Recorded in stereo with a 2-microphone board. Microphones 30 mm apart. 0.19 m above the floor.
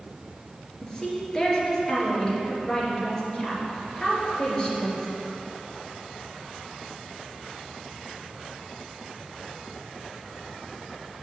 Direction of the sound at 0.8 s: 20° left (ahead or behind).